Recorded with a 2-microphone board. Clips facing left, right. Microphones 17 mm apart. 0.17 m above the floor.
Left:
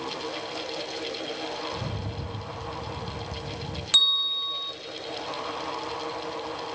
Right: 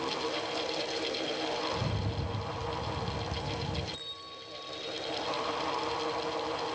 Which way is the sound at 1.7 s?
5° left (ahead or behind).